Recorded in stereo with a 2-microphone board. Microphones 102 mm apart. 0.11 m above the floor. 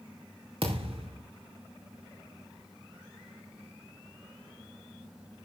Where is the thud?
60° right (ahead or behind), 4.5 m.